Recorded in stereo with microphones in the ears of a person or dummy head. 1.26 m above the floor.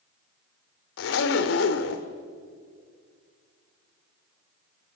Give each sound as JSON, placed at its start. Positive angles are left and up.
{"t": 1.0, "sound": "a zipper", "side_deg": 65, "distance_m": 1.6}